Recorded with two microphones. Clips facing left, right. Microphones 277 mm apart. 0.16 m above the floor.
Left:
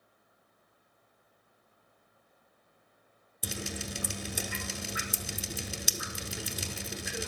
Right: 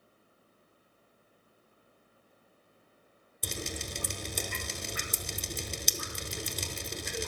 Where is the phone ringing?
I don't hear a phone ringing.